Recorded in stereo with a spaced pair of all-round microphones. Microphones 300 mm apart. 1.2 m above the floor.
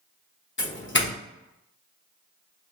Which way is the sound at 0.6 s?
40° left (ahead or behind).